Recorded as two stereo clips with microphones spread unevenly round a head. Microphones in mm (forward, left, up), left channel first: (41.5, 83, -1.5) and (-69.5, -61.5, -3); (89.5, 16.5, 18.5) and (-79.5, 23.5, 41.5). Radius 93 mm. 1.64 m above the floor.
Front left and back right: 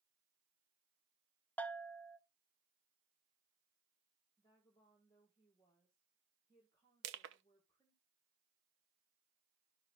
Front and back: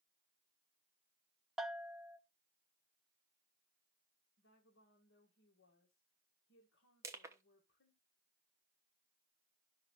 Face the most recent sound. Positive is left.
turn(degrees=-110)